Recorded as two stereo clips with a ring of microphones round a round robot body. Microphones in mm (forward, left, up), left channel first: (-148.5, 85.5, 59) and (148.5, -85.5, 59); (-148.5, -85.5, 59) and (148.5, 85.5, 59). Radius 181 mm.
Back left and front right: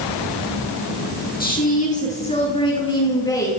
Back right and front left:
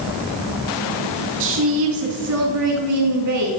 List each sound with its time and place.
1.4 s a woman speaking: 85° left, 6.5 m; by 3.5 s 70° left, 8 m